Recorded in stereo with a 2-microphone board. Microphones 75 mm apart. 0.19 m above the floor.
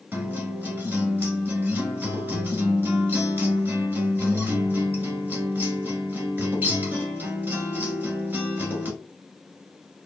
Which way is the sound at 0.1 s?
25° right (ahead or behind).